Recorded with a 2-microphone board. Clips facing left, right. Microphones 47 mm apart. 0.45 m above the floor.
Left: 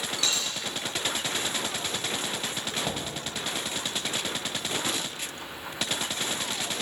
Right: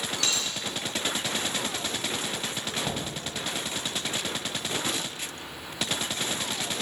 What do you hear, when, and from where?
0.2 s a dropped coin: 65° right (ahead or behind), 3 m
2.8 s knocking: 5° left (ahead or behind), 1.6 m